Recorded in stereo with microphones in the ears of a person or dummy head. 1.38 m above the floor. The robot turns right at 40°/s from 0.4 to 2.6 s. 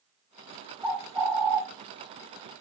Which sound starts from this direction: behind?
A bird, at 0.8 s.